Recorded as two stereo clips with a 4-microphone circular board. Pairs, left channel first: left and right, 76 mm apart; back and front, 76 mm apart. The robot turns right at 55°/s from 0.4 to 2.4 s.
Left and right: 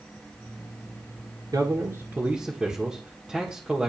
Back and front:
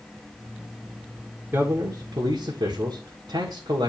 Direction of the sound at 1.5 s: 60° right.